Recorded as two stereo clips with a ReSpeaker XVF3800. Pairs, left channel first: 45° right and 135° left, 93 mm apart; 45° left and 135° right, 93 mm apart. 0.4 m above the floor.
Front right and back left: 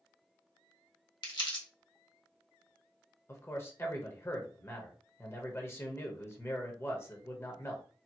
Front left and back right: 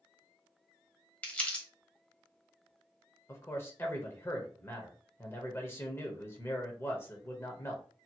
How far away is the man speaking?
About 1.1 m.